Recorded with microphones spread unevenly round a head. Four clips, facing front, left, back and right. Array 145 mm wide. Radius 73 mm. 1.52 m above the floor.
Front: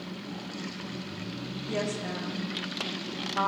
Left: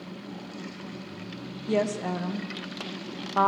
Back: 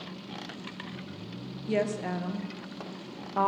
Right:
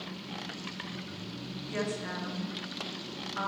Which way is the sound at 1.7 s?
115° left.